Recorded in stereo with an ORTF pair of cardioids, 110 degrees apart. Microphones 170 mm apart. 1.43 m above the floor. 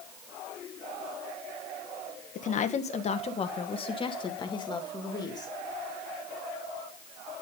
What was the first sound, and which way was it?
A woman speaking, 50° left.